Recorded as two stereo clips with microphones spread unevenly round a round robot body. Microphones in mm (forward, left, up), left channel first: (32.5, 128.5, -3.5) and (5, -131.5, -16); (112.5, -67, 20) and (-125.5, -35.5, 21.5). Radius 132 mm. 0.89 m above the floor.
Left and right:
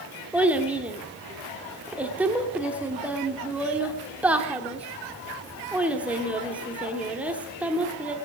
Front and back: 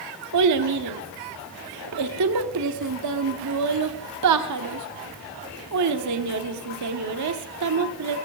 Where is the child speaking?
Straight behind, 1.2 m.